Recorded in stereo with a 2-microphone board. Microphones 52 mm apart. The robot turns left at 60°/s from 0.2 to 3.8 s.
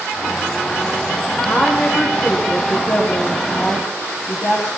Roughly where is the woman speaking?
Behind right.